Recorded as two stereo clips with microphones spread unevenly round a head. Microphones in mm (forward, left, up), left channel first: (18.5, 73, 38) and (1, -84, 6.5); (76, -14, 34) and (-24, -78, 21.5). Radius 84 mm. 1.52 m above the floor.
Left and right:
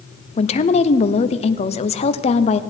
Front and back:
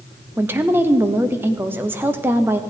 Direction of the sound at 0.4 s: 140° left.